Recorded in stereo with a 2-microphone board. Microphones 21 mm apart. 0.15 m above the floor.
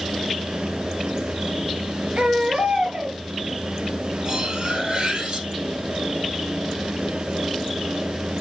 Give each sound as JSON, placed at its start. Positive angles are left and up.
{"t": 2.2, "sound": "a baby crying", "side_deg": -65, "distance_m": 2.5}
{"t": 4.2, "sound": "cutlery clinking", "side_deg": -45, "distance_m": 2.5}